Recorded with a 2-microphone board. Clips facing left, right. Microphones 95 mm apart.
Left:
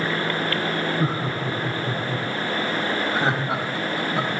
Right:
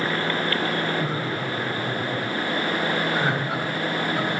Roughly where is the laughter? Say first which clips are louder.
Left 2 dB; left.